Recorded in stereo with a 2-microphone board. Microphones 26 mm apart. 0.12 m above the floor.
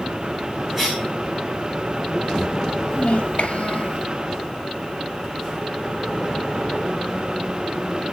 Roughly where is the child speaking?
Left.